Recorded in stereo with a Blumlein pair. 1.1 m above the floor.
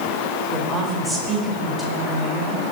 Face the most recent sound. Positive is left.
turn(degrees=-5)